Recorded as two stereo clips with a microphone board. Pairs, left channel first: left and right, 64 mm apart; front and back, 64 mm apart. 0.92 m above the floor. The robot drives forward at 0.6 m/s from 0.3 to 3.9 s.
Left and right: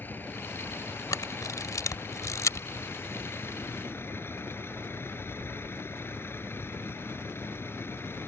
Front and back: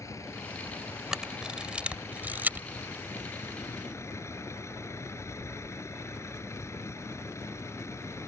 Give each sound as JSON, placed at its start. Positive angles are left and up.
{"t": 0.0, "sound": "a vehicle", "azimuth_deg": 35}
{"t": 1.1, "sound": "a camera shutter", "azimuth_deg": 100}